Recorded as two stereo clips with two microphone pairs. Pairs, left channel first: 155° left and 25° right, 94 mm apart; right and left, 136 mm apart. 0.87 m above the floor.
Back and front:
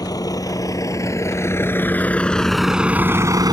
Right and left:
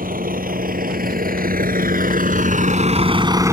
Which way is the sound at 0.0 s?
105° left.